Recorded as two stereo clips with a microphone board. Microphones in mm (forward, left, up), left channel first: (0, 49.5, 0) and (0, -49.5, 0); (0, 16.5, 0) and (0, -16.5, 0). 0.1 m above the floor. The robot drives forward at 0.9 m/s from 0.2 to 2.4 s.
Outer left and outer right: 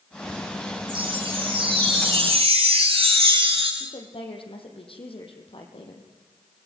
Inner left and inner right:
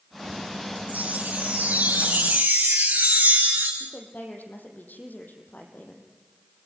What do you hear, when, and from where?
0.9 s a chime: 50° right (ahead or behind), 6 m; by 3.7 s 60° right (ahead or behind), 5 m
3.8 s a woman speaking: 65° left (ahead or behind), 4.5 m